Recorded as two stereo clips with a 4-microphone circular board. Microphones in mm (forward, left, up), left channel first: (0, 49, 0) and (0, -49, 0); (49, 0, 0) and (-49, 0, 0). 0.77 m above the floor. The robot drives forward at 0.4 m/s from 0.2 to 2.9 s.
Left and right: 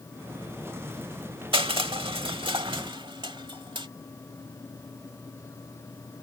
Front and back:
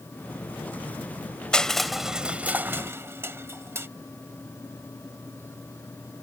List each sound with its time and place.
1.5 s crushing: 80° right; by 3.9 s 115° right